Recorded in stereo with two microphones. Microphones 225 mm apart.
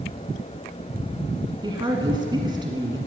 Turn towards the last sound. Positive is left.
turn(degrees=-20)  # may be behind; listen again after turning